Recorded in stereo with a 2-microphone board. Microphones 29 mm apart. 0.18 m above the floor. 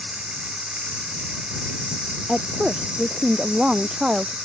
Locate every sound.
0.0 s running water: 35° right (ahead or behind)
2.3 s a woman speaking: 35° right (ahead or behind)